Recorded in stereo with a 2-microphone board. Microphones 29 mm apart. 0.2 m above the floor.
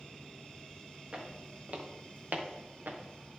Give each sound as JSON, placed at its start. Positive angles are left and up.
{"t": 1.1, "sound": "footsteps", "side_deg": -30, "distance_m": 2.5}